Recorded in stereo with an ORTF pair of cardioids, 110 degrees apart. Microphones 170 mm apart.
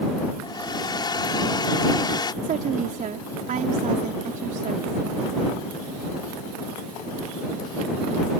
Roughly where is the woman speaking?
Ahead right.